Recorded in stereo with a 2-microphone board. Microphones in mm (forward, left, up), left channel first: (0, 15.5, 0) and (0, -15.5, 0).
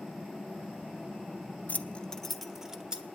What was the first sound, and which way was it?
Keys jangling, 55° left (ahead or behind).